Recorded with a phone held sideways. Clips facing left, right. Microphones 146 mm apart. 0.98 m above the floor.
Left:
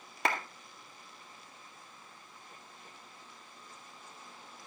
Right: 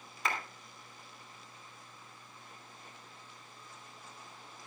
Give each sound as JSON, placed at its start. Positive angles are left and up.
{"t": 0.2, "sound": "a clap", "side_deg": 75, "distance_m": 1.9}